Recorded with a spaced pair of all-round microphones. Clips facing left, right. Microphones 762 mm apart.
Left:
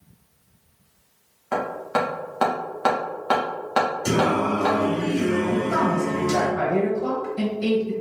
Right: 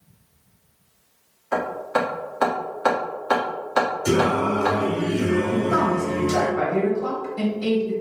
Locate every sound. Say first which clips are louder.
1.5 s hammering: right 1 dB; 55° left (ahead or behind), 1.3 m
4.0 s singing: right 2 dB; 30° left (ahead or behind), 1.1 m
5.5 s a woman speaking: right 1 dB; centre (ahead or behind), 1.4 m